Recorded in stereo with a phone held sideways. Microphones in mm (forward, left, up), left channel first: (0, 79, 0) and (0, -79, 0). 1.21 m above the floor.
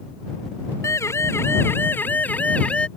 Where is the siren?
20° left (ahead or behind); by 2.9 s 5° left (ahead or behind).